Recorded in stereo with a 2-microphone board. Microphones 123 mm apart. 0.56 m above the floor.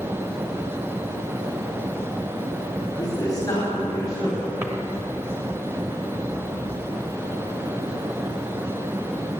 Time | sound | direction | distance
3.0 | a man speaking | 30° left (ahead or behind) | 4 m
4.6 | a drawer | 20° right (ahead or behind) | 1.5 m